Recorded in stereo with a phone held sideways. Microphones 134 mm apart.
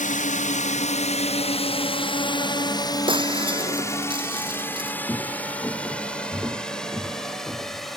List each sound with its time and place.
0.0 s a drone: 65° left (ahead or behind); by 8.0 s centre (ahead or behind)
3.1 s breaking glass: 35° right (ahead or behind)
5.1 s footsteps: 15° left (ahead or behind); by 7.9 s 5° left (ahead or behind)